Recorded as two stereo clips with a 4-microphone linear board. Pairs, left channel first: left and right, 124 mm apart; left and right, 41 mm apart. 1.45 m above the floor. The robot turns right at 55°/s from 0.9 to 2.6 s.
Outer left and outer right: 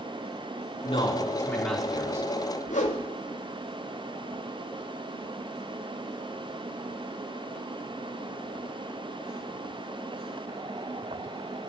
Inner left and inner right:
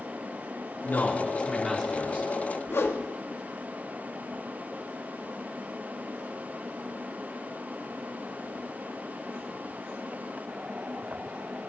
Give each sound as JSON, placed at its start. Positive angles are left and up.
{"t": 0.8, "sound": "a man speaking", "azimuth_deg": 135, "distance_m": 4.5}
{"t": 2.7, "sound": "a whoosh", "side_deg": 80, "distance_m": 2.0}